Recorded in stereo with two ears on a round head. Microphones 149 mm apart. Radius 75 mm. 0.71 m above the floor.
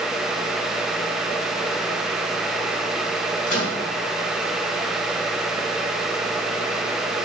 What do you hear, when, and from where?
3.5 s a microwave: 50° left (ahead or behind), 4.5 m